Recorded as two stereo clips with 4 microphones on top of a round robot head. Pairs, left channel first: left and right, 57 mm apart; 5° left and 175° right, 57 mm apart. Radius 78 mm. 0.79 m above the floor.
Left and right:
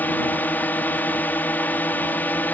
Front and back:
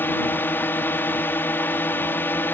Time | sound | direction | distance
0.0 | a drone | 45° left | ?